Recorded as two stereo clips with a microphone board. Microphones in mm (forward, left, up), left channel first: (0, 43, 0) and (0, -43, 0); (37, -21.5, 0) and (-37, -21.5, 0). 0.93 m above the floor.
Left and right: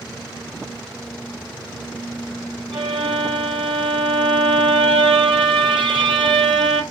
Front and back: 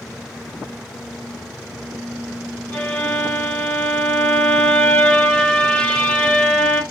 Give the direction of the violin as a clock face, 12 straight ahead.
2 o'clock.